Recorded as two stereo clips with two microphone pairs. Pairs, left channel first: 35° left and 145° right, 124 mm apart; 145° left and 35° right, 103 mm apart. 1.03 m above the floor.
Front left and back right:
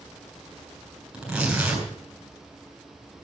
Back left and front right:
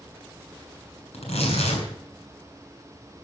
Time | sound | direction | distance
1.1 | tearing paper | 130° left | 7.5 m